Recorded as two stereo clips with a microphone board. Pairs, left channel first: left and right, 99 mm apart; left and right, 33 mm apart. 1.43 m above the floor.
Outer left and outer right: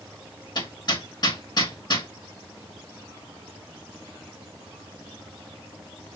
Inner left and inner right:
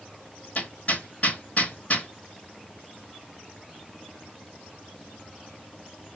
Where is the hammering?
45° left (ahead or behind), 1.8 m.